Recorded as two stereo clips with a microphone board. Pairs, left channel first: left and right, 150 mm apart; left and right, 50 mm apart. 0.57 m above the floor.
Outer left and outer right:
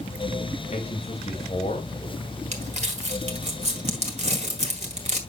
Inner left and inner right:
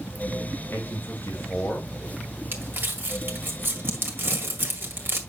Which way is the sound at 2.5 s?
45° right (ahead or behind).